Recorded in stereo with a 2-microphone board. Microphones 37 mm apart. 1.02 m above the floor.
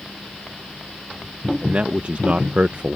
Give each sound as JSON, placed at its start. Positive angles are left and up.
{"t": 1.6, "sound": "a man speaking", "side_deg": -45}